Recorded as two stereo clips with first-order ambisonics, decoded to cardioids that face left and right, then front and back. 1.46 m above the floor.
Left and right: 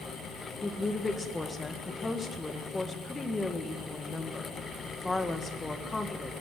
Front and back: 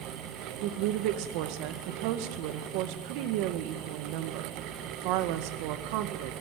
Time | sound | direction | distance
0.6 | a woman speaking | 170° left | 1.7 m